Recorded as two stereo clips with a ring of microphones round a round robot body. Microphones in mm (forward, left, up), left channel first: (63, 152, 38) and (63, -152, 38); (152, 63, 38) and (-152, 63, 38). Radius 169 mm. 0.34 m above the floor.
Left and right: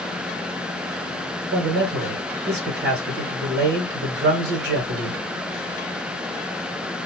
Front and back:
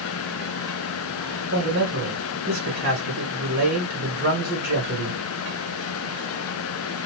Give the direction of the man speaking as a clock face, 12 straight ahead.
4 o'clock.